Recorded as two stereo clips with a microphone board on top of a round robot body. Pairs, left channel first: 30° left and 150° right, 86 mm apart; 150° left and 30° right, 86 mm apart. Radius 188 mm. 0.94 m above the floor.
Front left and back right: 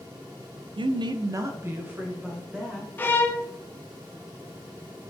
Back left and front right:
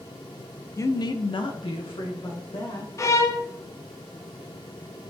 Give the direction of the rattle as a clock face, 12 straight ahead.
I don't hear a rattle.